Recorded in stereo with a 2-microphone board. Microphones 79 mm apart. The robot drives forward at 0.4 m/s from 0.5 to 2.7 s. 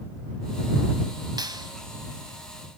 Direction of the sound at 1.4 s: 60° right (ahead or behind).